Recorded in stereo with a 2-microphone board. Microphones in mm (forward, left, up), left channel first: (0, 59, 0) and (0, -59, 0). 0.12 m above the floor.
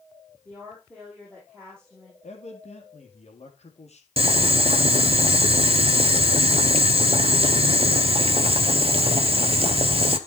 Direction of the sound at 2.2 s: 65° left (ahead or behind).